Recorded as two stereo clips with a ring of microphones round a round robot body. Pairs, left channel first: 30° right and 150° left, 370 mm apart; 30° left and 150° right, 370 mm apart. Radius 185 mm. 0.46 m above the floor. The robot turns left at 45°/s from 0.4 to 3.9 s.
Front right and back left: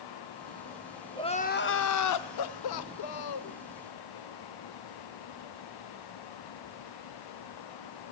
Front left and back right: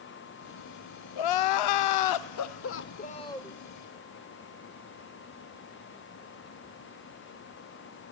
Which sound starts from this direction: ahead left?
Crying, at 1.2 s.